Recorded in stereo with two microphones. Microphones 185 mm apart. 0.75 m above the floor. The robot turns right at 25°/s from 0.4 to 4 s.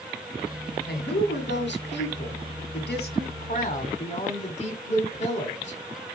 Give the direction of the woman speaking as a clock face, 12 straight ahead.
10 o'clock.